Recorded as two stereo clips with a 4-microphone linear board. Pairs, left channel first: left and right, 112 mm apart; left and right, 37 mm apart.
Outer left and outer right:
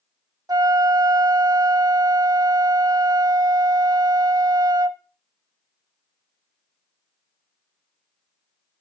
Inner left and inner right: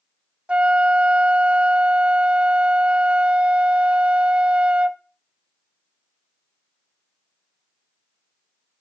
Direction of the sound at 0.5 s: 35° right (ahead or behind).